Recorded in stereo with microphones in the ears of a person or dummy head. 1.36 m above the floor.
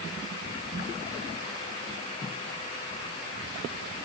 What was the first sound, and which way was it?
Only background noise.